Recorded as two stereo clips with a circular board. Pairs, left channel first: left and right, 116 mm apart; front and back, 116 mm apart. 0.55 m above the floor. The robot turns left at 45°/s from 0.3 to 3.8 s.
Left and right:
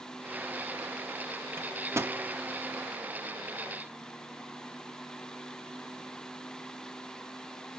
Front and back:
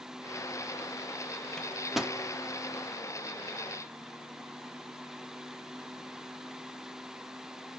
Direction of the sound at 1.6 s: 75° right.